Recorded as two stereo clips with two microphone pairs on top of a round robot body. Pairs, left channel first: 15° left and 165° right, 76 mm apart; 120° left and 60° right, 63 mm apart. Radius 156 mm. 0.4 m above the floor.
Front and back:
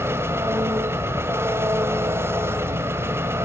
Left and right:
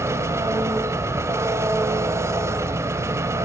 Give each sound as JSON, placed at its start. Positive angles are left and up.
{"t": 0.0, "sound": "an engine running", "azimuth_deg": -100, "distance_m": 1.7}